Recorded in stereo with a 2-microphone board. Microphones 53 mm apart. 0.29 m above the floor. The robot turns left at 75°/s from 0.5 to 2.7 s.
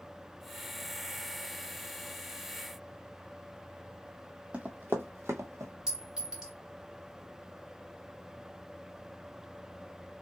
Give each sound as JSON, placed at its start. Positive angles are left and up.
{"t": 4.5, "sound": "running footsteps", "side_deg": -25, "distance_m": 0.8}
{"t": 5.9, "sound": "a clink", "side_deg": -10, "distance_m": 1.7}